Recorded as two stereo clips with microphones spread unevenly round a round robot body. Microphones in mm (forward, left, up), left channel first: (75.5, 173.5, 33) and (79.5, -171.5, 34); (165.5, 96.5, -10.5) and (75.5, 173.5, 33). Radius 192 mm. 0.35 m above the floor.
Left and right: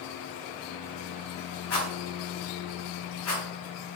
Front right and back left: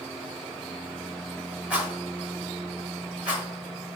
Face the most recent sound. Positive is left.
turn(degrees=50)